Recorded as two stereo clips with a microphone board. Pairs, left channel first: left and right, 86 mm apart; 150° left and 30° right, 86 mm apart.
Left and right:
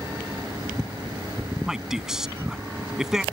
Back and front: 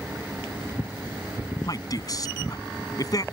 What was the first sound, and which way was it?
A man speaking, 175° right.